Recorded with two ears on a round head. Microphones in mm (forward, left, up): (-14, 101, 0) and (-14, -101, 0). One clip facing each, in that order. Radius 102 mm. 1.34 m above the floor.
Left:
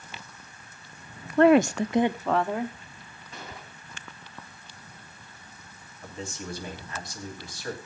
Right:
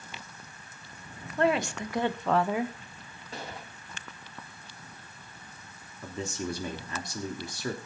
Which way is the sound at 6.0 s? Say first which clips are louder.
Right 4 dB; 75° right (ahead or behind).